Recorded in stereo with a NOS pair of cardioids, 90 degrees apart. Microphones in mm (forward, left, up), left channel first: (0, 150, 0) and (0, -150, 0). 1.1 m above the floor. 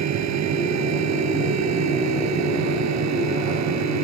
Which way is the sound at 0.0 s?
65° right.